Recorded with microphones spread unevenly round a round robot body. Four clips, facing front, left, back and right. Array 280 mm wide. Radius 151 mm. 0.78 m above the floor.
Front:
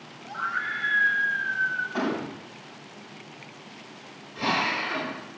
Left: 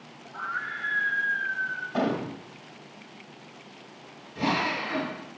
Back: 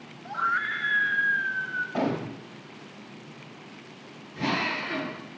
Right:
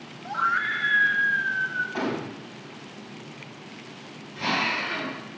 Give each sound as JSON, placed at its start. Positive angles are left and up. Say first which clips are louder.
{"t": 0.2, "sound": "a scream", "louder": "right 8 dB, back 3 dB", "azimuth_deg": -115, "distance_m": 0.8}
{"t": 1.9, "sound": "a gunshot", "louder": "left 2 dB, even", "azimuth_deg": 140, "distance_m": 1.0}
{"t": 4.3, "sound": "a drill", "louder": "left 1 dB, front 2 dB", "azimuth_deg": 140, "distance_m": 5.5}